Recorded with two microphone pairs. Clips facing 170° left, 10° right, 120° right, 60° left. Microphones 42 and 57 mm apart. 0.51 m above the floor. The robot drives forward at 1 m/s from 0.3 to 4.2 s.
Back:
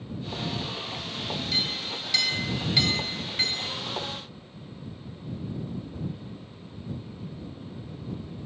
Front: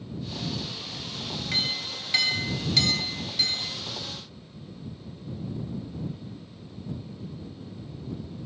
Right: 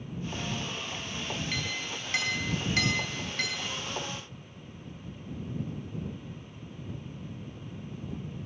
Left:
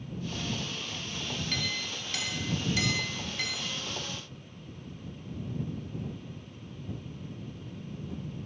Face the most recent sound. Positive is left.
turn(degrees=-160)